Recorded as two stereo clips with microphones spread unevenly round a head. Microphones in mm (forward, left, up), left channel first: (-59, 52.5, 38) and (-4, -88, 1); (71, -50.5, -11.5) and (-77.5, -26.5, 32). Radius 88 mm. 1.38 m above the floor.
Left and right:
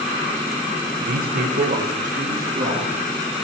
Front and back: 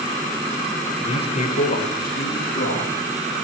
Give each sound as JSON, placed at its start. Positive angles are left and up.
{"t": 1.0, "sound": "a man speaking", "azimuth_deg": -60, "distance_m": 1.3}